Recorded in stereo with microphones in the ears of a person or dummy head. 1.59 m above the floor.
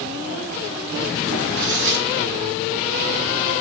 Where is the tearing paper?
55° right (ahead or behind), 3 m.